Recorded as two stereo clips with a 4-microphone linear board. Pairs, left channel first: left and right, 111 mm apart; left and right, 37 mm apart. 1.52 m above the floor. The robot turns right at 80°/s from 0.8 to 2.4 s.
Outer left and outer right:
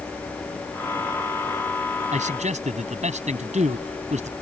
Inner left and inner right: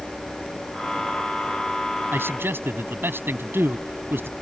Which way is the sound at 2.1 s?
80° right.